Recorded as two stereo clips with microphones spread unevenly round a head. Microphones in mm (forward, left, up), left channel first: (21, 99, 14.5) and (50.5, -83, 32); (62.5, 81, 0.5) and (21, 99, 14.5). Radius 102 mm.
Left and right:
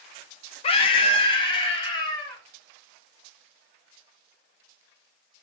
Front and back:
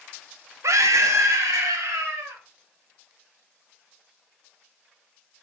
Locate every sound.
0.6 s a scream: 155° left, 1.1 m; by 2.4 s 170° left, 3.5 m